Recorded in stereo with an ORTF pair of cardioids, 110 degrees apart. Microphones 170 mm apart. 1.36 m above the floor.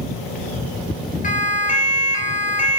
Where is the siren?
45° left, 3.5 m.